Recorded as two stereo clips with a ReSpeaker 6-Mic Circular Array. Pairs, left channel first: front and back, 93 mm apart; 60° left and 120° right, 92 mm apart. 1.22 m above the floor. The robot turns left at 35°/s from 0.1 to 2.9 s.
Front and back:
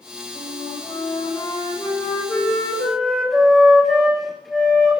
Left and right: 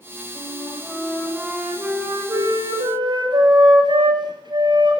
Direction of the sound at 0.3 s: Straight ahead.